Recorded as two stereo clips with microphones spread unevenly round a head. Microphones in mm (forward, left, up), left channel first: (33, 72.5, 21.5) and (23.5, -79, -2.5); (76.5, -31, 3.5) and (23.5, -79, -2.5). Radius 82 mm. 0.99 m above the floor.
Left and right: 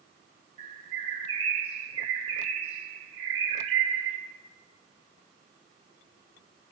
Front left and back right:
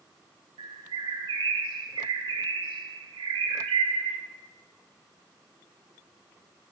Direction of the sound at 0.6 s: 155° right.